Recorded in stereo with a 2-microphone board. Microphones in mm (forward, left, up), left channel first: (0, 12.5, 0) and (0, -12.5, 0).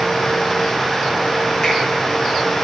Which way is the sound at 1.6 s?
10° left (ahead or behind).